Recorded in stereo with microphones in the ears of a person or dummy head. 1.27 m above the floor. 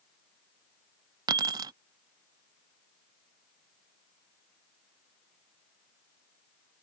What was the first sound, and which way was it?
Keys jangling, 25° right (ahead or behind).